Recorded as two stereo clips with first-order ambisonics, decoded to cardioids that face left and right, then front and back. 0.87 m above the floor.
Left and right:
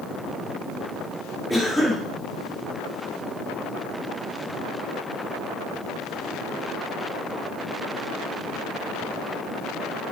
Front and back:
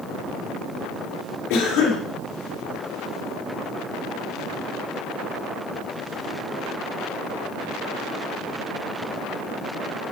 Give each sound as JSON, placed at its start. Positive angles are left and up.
{"t": 1.5, "sound": "a cough", "azimuth_deg": 0, "distance_m": 2.5}